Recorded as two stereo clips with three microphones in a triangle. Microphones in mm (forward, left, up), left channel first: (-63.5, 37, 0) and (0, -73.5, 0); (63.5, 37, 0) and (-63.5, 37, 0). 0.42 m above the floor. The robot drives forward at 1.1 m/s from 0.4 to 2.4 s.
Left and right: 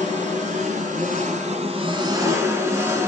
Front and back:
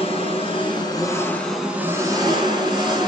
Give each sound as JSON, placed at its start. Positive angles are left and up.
{"t": 0.0, "sound": "an engine running", "azimuth_deg": -40, "distance_m": 1.7}